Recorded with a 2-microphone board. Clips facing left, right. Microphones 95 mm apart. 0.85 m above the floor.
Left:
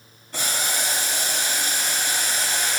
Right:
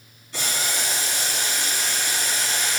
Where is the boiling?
45° left (ahead or behind), 4.5 m.